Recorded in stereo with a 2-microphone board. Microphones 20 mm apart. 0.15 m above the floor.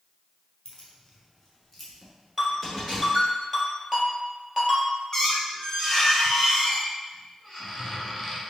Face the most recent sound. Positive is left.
turn(degrees=10)  # may be behind; listen again after turning